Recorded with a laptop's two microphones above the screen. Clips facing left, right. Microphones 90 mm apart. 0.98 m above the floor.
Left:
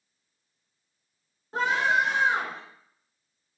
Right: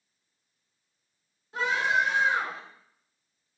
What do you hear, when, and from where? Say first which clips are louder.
1.5 s a scream: left 2 dB; 40° left (ahead or behind), 8 m